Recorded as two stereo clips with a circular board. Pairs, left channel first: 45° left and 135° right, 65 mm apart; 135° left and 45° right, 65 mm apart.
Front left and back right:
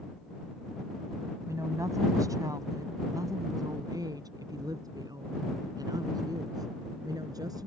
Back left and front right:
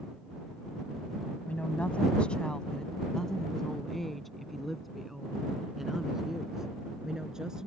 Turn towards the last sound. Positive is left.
turn(degrees=-125)